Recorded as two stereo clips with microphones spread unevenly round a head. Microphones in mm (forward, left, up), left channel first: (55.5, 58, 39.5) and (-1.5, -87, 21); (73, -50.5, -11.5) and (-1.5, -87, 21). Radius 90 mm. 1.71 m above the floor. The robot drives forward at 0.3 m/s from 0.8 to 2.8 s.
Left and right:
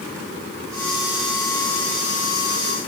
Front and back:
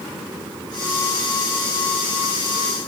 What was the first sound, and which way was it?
Only background noise.